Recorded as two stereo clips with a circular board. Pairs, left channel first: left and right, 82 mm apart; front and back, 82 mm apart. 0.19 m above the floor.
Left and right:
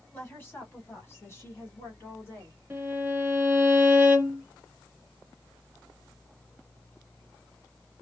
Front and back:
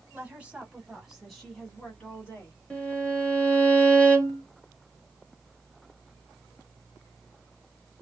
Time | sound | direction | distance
0.1 | a woman speaking | 135° left | 1.8 m
2.7 | a violin | 55° right | 1.3 m